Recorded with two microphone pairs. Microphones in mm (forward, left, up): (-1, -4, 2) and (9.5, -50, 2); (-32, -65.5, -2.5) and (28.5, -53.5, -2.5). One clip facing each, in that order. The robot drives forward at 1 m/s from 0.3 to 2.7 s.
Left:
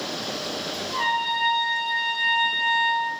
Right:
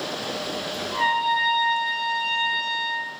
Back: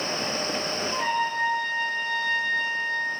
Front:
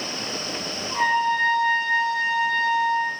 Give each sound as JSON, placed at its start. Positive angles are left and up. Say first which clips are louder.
{"t": 0.9, "sound": "a trumpet", "louder": "right 3 dB, front 7 dB", "azimuth_deg": 10, "distance_m": 2.5}